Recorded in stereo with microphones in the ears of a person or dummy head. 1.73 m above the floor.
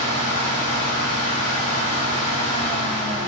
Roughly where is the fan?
Left.